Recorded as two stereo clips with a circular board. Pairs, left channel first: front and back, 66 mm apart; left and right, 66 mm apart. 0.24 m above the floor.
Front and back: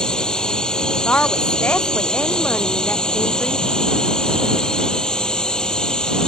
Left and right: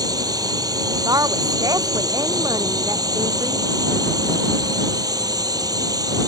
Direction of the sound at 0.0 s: 80° right.